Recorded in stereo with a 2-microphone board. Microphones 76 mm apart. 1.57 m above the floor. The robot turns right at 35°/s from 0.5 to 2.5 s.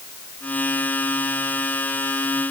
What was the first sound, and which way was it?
Only background noise.